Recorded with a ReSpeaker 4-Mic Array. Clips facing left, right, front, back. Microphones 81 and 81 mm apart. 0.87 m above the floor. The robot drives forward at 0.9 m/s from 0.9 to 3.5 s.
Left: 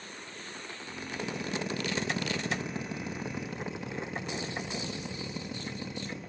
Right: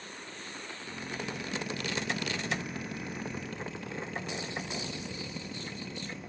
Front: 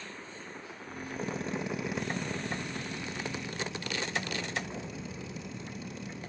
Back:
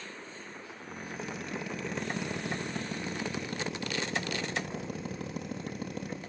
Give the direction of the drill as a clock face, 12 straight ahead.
11 o'clock.